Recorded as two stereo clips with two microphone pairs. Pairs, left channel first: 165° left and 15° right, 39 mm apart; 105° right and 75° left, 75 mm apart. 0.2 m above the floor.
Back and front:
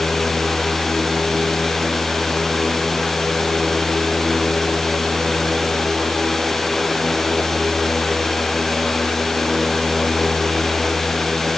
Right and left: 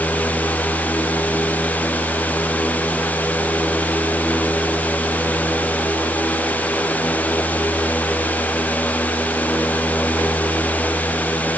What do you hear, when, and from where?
Only background noise.